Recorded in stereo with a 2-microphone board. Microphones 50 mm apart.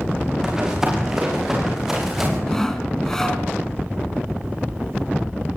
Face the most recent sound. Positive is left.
turn(degrees=10)  # may be behind; listen again after turning